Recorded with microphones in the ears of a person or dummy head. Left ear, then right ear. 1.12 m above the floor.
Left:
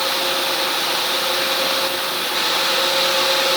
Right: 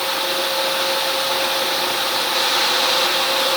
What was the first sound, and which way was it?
Only background noise.